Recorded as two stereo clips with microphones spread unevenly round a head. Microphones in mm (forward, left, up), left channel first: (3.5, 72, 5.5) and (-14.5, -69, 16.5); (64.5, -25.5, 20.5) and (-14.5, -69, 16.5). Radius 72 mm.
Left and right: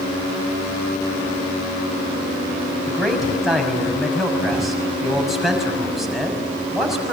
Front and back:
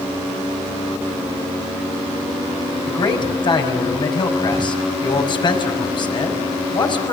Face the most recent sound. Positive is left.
turn(degrees=-10)